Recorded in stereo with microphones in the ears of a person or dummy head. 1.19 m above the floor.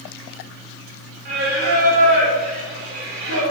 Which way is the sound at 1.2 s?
45° right (ahead or behind).